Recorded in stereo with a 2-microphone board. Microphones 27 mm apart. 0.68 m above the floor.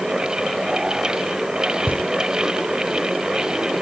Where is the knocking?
80° left.